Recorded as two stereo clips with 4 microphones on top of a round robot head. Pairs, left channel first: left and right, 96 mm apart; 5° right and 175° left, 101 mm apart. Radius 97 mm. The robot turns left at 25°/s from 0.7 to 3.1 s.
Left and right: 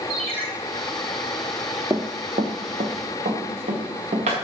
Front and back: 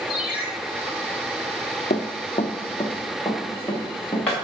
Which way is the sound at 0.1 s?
50° right.